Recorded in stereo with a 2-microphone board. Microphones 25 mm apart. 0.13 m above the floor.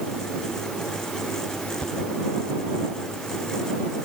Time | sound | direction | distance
1.8 | a thud | 55° left (ahead or behind) | ?